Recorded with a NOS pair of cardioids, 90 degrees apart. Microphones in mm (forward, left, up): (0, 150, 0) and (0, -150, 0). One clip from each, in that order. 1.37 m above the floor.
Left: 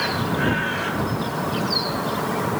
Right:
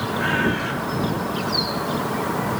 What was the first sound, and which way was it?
Only background noise.